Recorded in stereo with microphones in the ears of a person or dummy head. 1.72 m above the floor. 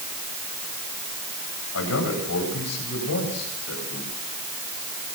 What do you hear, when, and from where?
1.7 s a man speaking: 90° left, 10 m